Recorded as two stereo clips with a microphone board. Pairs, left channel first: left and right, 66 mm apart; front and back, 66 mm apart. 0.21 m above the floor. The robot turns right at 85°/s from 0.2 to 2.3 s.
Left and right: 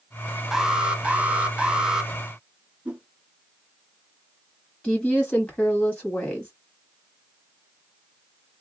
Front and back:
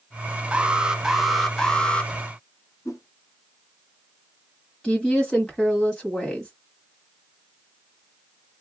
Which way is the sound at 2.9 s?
25° right.